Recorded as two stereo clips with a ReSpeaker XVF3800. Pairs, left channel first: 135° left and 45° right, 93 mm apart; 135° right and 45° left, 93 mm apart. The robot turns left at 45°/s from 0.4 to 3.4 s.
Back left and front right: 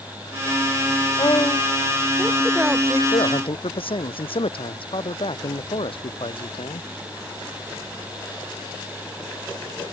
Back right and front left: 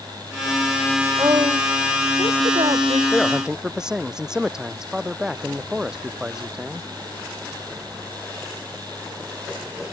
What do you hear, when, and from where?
1.2 s a woman speaking: 100° left; by 3.0 s 15° left
3.1 s a man speaking: 140° left; by 6.9 s 130° left